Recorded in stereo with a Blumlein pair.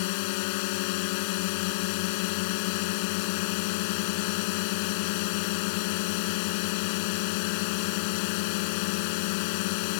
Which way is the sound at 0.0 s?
45° left.